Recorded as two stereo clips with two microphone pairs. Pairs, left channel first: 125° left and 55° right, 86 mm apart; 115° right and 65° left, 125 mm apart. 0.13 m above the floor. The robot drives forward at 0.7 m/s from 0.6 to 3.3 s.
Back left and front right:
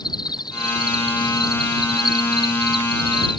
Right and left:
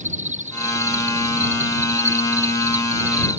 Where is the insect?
90° left; by 3.4 s 95° left.